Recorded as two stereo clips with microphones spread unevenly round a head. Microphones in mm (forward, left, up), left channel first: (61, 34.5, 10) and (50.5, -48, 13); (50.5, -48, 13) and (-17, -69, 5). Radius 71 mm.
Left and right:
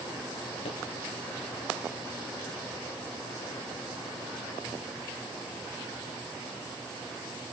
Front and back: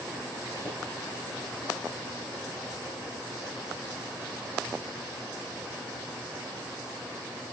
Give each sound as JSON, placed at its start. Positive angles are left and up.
{"t": 0.7, "sound": "a pop", "azimuth_deg": 75, "distance_m": 7.5}